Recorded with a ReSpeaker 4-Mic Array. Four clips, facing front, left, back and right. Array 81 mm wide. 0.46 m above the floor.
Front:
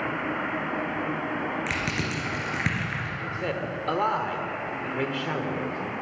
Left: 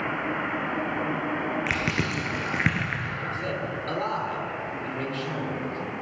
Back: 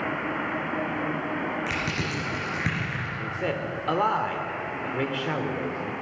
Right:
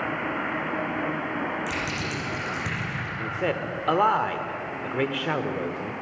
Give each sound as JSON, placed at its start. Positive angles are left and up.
{"t": 1.7, "sound": "crushing", "azimuth_deg": 85, "distance_m": 2.5}
{"t": 3.2, "sound": "a man speaking", "azimuth_deg": -95, "distance_m": 1.1}